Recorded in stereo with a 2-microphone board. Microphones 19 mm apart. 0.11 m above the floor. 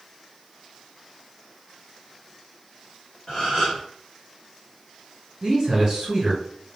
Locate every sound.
3.3 s a gasp: 40° left (ahead or behind), 1.5 m
5.4 s a man speaking: 35° right (ahead or behind), 1.7 m